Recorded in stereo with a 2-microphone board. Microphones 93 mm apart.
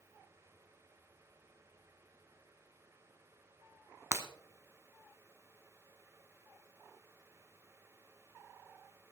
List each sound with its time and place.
4.1 s breaking glass: 30° right (ahead or behind), 1.0 m